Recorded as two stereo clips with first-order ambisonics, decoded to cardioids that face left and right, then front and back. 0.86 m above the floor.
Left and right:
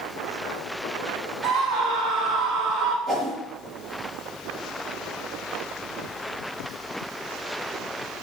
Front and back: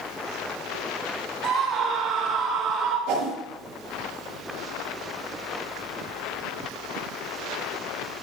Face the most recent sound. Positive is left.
turn(degrees=175)